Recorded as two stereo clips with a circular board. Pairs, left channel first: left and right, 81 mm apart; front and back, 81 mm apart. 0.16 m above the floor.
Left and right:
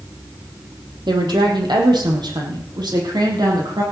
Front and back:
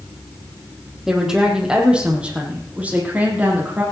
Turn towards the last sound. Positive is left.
turn(degrees=-115)